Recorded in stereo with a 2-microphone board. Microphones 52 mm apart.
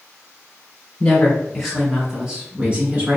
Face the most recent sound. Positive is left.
turn(degrees=-35)  # may be behind; listen again after turning